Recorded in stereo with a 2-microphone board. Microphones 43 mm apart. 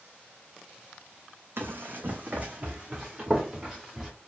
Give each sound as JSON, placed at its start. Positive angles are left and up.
{"t": 1.6, "sound": "running footsteps", "side_deg": -60, "distance_m": 0.9}